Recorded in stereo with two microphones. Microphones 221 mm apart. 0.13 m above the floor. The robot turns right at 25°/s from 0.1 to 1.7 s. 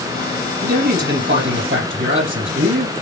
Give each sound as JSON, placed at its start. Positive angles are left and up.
{"t": 0.6, "sound": "a man speaking", "side_deg": -45, "distance_m": 4.5}